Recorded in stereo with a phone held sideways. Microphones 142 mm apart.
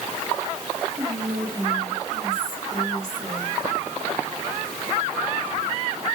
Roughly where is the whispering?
Right.